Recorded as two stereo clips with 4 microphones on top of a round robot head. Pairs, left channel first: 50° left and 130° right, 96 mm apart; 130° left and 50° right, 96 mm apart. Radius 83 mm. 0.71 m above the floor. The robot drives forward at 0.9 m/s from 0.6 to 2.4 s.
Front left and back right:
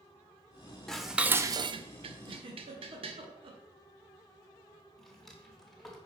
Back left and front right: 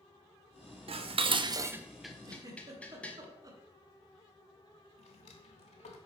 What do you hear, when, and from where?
0.9 s dishes clattering: 35° right, 0.8 m; by 3.2 s 150° right, 0.9 m
2.2 s a giggle: 95° right, 1.4 m; by 3.6 s 100° right, 1.4 m
5.0 s a drawer: 135° left, 1.1 m